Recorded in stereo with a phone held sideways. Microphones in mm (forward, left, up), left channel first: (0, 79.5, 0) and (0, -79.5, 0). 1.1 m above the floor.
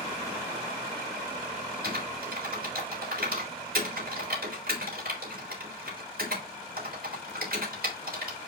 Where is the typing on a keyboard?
70° right (ahead or behind), 3.5 m.